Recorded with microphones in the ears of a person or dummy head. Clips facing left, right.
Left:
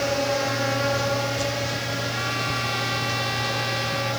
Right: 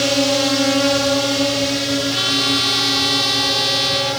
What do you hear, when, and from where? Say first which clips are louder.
0.0 s a drone: right 7 dB; 50° right (ahead or behind); by 4.2 s 60° right (ahead or behind)
2.1 s a trumpet: right 8 dB; 55° right (ahead or behind)